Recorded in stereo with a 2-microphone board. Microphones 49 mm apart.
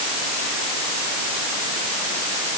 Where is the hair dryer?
I don't hear a hair dryer.